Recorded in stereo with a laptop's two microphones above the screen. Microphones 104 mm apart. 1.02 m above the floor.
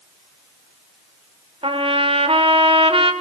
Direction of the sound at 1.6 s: 65° right (ahead or behind).